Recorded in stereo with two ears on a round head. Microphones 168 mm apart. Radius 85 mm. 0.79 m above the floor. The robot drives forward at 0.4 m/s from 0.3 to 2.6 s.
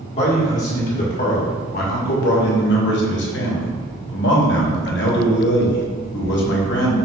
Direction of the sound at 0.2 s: 35° left (ahead or behind).